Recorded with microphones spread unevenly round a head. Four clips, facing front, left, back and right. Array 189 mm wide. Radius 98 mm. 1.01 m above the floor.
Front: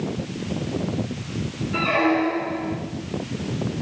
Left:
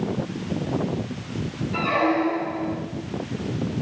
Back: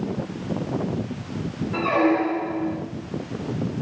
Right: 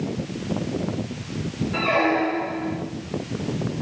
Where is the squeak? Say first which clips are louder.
Even, back 1 dB; straight behind, 6.5 m.